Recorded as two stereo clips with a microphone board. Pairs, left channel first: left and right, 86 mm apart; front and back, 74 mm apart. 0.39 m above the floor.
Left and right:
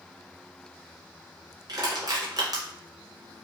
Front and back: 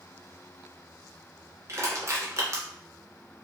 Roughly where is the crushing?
Behind right.